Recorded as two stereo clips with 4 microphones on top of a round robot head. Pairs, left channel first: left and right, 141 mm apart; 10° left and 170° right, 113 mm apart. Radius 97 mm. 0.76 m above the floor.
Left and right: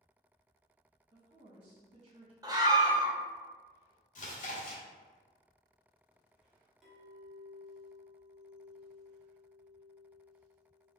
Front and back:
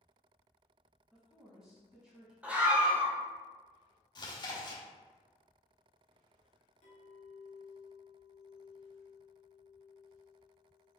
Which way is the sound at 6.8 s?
5° right.